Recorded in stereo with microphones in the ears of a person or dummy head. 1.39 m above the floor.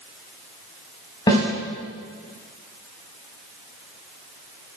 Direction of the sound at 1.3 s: 20° left (ahead or behind).